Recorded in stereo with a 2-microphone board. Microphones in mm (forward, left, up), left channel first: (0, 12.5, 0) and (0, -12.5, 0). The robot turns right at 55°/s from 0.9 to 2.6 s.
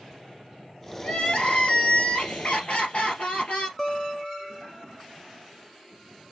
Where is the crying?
35° left, 2 m; by 3.7 s 120° left, 2 m.